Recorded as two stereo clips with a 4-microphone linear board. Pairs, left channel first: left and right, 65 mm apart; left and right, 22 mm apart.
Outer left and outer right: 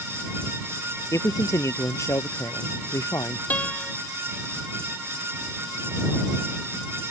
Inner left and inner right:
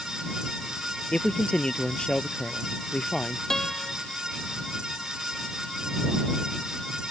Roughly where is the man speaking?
Left.